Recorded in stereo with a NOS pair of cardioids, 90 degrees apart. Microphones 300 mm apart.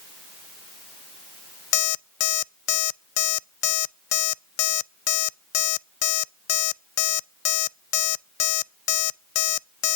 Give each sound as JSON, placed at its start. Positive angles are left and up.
{"t": 1.7, "sound": "an alarm clock", "azimuth_deg": 55, "distance_m": 0.5}